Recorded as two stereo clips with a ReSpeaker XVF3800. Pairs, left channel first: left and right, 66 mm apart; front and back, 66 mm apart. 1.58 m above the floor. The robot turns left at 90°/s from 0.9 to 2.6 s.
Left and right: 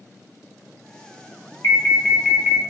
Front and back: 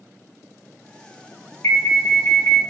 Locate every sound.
1.6 s an alarm: 45° left, 1.1 m; by 2.6 s 45° right, 1.1 m